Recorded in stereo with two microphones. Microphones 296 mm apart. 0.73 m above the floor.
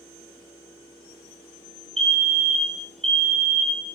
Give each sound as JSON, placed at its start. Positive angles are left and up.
{"t": 2.0, "sound": "a fire alarm", "side_deg": 0, "distance_m": 1.6}